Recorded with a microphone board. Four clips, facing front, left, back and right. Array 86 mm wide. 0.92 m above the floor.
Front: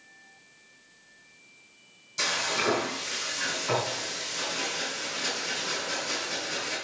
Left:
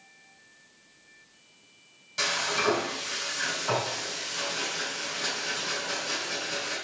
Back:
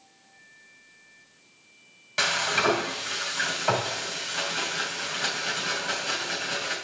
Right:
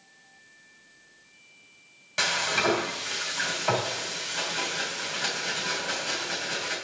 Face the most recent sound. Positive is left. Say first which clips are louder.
# right 2 dB, back 4 dB
turn(degrees=-145)